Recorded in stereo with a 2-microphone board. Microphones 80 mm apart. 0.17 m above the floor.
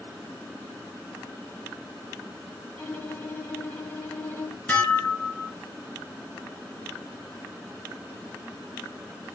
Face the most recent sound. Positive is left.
turn(degrees=20)  # may be behind; listen again after turning